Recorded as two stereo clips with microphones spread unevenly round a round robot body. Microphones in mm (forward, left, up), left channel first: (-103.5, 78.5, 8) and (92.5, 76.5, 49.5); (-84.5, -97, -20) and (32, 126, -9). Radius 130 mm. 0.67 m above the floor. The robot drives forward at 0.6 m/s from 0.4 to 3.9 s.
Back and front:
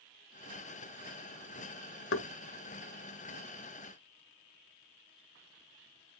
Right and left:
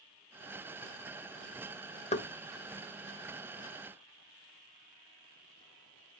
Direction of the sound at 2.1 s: 175° left.